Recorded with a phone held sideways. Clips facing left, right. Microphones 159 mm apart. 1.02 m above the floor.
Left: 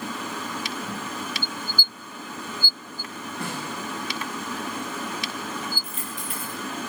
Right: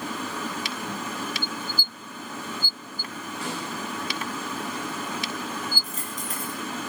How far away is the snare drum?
About 9.5 m.